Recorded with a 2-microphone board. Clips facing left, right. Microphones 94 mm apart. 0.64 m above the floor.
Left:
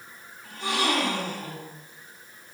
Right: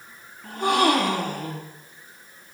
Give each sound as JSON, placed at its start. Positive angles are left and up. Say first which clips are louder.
{"t": 0.4, "sound": "a gasp", "louder": "right 7 dB", "side_deg": -55, "distance_m": 1.9}